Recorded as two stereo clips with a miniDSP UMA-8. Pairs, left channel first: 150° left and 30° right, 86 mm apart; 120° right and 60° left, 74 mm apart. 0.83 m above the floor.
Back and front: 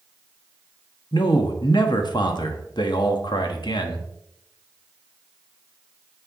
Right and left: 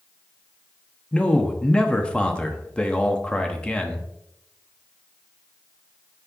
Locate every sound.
1.1 s a man speaking: 165° left, 1.2 m